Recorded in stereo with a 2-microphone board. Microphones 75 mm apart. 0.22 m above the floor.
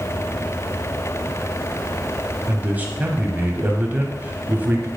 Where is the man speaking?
25° right (ahead or behind), 1.0 m.